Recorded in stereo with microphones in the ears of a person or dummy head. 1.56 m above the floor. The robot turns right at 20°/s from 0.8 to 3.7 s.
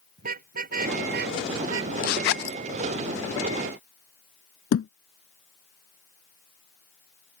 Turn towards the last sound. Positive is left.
turn(degrees=60)  # may be behind; listen again after turning